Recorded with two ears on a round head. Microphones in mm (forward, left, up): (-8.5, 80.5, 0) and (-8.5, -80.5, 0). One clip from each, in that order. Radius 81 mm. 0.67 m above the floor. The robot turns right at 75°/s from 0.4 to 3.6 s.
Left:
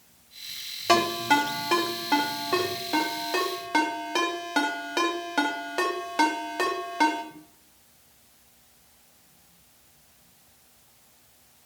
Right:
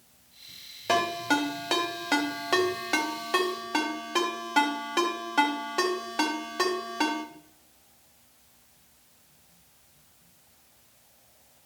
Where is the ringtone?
15° left (ahead or behind), 1.9 m; by 7.2 s 10° left (ahead or behind), 1.9 m.